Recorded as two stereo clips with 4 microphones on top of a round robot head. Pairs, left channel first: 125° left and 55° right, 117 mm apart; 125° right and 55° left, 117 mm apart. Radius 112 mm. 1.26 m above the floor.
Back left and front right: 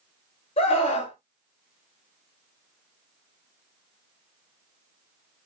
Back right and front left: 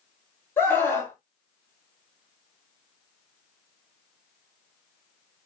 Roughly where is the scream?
Behind.